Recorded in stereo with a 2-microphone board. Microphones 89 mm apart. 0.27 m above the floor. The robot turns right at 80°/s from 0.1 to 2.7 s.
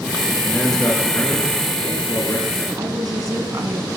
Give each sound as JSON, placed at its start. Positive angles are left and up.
{"t": 0.4, "sound": "a man speaking", "azimuth_deg": -15, "distance_m": 5.0}
{"t": 2.8, "sound": "a woman speaking", "side_deg": -50, "distance_m": 2.0}